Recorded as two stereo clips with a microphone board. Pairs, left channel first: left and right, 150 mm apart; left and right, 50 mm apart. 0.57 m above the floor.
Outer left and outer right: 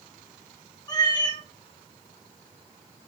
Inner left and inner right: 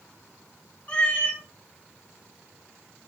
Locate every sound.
0.9 s a cat meowing: 30° left (ahead or behind), 1.2 m